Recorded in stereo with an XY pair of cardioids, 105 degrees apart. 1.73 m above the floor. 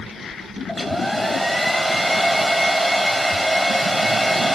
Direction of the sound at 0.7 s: 10° left.